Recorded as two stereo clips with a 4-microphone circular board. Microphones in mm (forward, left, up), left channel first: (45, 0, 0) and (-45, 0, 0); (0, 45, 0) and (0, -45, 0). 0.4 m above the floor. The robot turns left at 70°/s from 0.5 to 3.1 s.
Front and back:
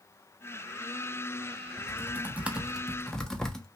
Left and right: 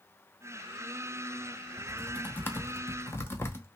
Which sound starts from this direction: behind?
Typing on a keyboard, at 1.8 s.